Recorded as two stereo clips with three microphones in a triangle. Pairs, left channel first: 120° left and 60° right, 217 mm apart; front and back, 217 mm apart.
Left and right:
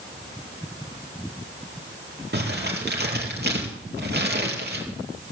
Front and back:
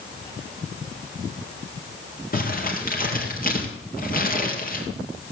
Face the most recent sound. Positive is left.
turn(degrees=-35)